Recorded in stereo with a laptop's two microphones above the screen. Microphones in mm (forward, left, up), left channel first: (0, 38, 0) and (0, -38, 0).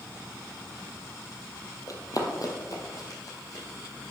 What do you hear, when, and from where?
1.9 s running footsteps: 50° left (ahead or behind), 1.3 m